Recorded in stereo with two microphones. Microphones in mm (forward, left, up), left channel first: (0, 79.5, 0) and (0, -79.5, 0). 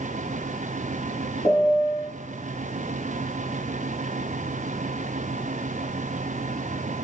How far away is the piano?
About 5 m.